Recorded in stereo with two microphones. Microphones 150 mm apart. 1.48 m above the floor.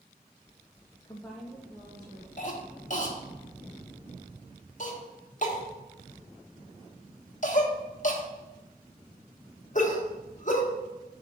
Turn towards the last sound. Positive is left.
turn(degrees=55)  # may be behind; listen again after turning